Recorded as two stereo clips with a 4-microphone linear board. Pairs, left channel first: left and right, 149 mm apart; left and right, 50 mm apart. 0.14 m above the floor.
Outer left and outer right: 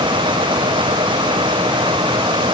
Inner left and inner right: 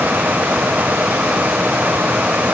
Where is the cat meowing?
No cat meowing in this recording.